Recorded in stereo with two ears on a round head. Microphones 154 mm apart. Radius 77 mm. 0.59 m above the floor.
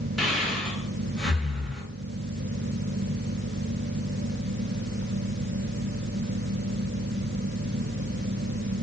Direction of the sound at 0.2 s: Centre (ahead or behind).